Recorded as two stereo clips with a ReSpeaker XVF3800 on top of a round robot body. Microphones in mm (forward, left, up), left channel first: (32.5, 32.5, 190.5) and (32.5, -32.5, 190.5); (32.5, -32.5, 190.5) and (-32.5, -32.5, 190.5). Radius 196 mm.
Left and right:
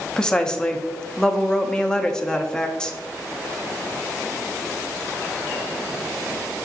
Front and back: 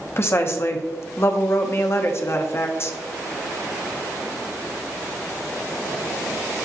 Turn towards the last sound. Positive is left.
turn(degrees=15)